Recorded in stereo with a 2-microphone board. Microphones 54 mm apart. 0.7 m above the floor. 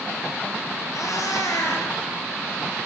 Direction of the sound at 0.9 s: 85° left.